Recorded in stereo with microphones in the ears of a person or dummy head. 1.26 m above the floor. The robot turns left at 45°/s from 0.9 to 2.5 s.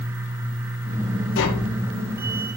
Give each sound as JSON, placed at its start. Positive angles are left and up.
{"t": 1.4, "sound": "tapping", "side_deg": 75, "distance_m": 4.0}